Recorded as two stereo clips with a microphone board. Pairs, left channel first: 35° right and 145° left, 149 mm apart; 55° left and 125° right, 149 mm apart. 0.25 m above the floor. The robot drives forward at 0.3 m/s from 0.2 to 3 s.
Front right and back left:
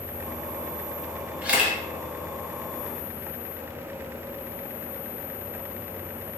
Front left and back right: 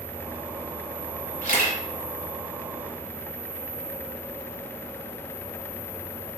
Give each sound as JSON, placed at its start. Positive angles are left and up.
{"t": 1.4, "sound": "a camera shutter", "azimuth_deg": 65, "distance_m": 1.1}